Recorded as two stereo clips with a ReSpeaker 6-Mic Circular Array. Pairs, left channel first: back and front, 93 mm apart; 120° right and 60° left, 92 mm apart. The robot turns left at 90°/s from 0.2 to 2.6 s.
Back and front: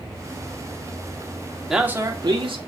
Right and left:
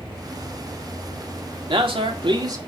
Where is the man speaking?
90° left, 1.9 m; by 2.7 s 5° left, 1.9 m.